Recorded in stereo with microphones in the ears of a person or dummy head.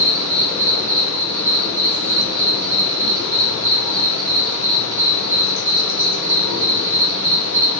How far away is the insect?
About 1.0 m.